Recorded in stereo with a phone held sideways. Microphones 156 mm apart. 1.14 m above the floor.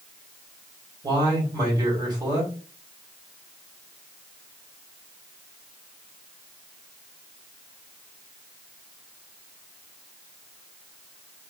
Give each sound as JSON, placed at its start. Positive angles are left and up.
{"t": 1.0, "sound": "a man speaking", "side_deg": -25, "distance_m": 1.8}